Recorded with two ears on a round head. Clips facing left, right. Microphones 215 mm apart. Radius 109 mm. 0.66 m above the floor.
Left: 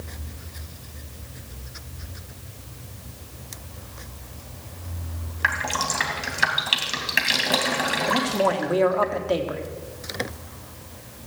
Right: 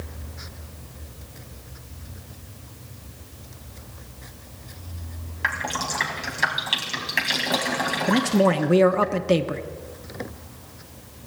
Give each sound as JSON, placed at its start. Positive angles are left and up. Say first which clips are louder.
{"t": 5.4, "sound": "dripping", "louder": "left 1 dB", "side_deg": 10, "distance_m": 2.5}
{"t": 8.1, "sound": "a man speaking", "louder": "right 5 dB", "side_deg": -35, "distance_m": 1.0}